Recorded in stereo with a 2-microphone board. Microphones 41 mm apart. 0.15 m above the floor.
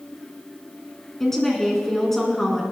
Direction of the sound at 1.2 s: 10° left (ahead or behind).